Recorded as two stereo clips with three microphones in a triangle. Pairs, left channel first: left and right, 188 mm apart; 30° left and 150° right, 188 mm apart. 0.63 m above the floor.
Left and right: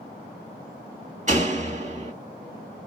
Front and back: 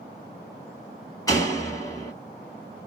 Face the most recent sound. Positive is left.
turn(degrees=-40)